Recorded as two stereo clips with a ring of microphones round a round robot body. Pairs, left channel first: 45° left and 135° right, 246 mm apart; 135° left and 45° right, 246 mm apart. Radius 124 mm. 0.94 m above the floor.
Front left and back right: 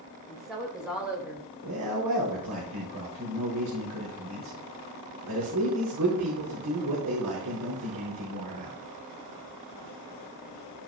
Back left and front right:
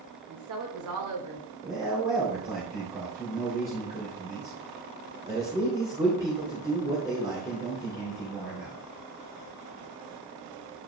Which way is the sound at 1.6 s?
120° right.